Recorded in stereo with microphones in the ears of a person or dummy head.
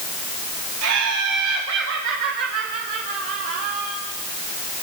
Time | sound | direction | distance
0.8 | laughter | 80° right | 2 m